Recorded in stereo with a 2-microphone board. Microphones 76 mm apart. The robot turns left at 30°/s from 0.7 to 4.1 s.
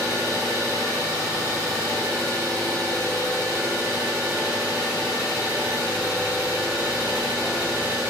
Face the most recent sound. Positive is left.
turn(degrees=-155)